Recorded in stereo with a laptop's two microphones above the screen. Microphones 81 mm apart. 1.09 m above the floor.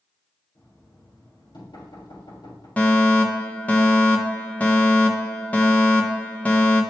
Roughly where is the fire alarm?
Centre.